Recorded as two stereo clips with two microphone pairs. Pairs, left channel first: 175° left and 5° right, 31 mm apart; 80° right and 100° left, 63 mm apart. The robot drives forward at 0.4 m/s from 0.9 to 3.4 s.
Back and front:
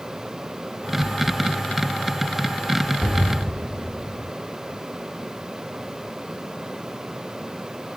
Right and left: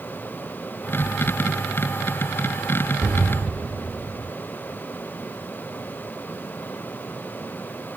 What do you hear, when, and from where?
3.0 s an explosion: 100° left, 1.7 m; by 4.3 s 115° left, 1.8 m